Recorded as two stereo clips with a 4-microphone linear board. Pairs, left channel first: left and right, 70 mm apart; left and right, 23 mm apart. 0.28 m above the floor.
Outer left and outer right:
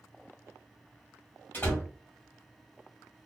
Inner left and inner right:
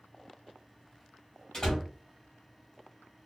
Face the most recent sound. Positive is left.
turn(degrees=30)  # may be behind; listen again after turning